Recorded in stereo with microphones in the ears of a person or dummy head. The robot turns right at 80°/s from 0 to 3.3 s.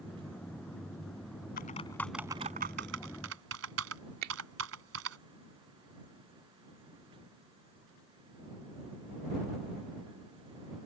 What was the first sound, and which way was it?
Typing on a keyboard, 45° left (ahead or behind).